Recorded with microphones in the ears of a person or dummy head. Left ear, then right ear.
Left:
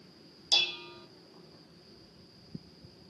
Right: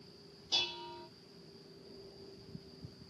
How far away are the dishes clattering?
About 2 m.